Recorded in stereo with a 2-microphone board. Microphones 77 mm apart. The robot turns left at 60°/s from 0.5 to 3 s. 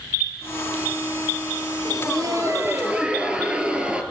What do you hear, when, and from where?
1.9 s laughter: 95° right, 2 m; by 4.0 s 165° right, 2 m